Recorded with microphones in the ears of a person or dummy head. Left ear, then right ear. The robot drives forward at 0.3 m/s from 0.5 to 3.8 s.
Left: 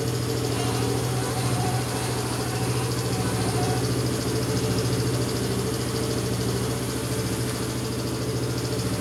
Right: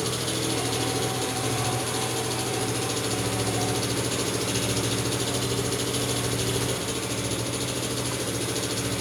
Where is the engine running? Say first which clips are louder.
Even; 80° right, 8 m.